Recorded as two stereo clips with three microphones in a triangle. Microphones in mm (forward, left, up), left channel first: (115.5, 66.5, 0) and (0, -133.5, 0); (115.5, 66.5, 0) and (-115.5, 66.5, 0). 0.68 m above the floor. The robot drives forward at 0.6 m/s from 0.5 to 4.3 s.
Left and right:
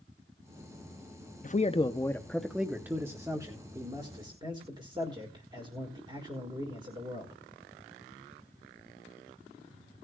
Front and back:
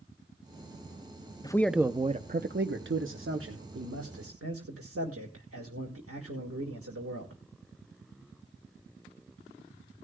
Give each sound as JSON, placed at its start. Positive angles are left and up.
{"t": 1.4, "sound": "a man speaking", "azimuth_deg": 60, "distance_m": 0.5}